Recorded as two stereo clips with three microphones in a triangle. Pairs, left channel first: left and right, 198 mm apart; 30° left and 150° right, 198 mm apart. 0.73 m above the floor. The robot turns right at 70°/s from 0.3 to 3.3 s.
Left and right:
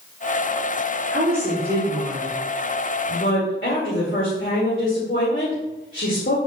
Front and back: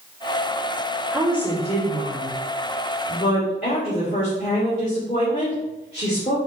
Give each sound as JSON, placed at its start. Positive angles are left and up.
{"t": 1.1, "sound": "a woman speaking", "azimuth_deg": -70, "distance_m": 2.5}